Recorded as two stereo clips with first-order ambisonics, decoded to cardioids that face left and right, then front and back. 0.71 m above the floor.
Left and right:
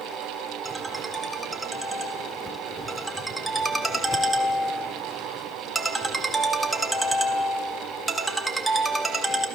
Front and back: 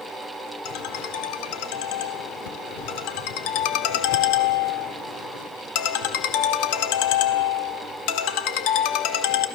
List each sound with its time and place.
0.7 s a ringtone: 5° right, 1.4 m